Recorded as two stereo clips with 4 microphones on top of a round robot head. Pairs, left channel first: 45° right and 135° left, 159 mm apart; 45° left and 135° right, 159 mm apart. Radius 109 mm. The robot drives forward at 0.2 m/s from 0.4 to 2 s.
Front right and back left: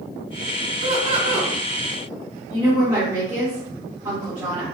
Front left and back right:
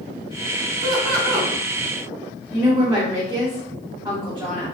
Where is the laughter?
170° left, 1.9 m.